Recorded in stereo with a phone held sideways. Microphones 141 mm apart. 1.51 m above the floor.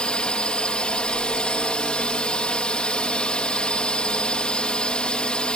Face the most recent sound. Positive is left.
turn(degrees=5)  # may be behind; listen again after turning